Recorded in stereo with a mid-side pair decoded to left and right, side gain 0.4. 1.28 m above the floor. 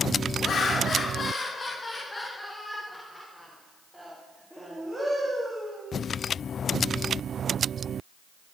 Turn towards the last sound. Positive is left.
turn(degrees=-25)